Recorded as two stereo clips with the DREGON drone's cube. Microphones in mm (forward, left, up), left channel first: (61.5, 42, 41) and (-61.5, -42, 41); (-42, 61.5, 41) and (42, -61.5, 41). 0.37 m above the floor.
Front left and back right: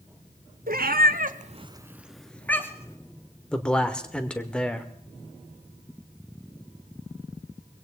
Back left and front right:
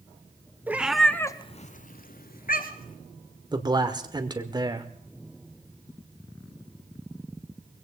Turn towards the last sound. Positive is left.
turn(degrees=-45)